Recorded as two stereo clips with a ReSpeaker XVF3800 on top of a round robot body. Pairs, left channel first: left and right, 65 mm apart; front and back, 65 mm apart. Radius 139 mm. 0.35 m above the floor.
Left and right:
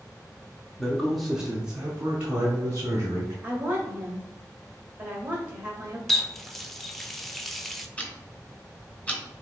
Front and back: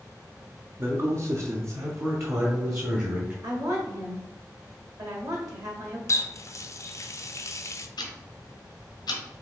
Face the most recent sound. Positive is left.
turn(degrees=20)